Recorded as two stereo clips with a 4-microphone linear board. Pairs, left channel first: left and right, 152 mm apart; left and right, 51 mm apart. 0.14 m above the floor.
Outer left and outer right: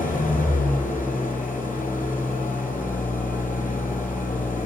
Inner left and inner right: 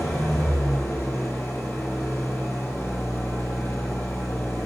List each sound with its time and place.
0.0 s an engine running: 65° left (ahead or behind), 3.5 m